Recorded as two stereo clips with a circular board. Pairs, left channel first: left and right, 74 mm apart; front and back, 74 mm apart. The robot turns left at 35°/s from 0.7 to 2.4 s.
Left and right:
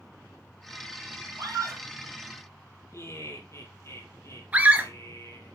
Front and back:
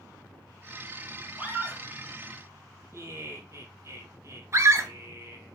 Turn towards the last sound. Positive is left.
turn(degrees=-150)